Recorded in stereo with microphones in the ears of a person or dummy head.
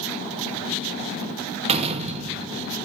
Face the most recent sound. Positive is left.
turn(degrees=-30)  # may be behind; listen again after turning